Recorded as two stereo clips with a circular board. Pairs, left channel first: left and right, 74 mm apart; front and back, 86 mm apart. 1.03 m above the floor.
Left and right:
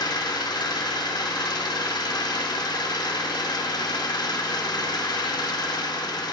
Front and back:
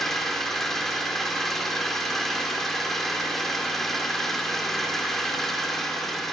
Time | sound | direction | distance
0.0 | an engine running | 90° left | 3 m